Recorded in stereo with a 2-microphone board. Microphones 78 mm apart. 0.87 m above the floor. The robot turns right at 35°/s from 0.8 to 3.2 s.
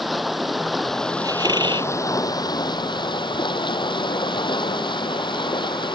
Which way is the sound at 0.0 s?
Straight ahead.